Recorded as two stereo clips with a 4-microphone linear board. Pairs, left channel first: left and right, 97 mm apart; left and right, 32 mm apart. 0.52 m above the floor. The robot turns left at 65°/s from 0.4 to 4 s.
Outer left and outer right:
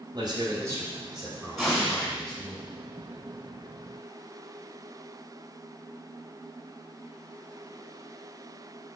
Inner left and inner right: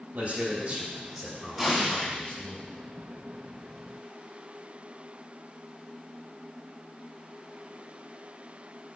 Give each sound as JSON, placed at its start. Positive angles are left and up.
{"t": 0.1, "sound": "a man speaking", "azimuth_deg": -125, "distance_m": 2.5}
{"t": 1.6, "sound": "an explosion", "azimuth_deg": 180, "distance_m": 3.5}